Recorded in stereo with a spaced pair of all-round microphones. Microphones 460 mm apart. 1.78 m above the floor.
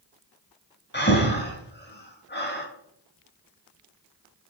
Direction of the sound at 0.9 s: 20° left (ahead or behind).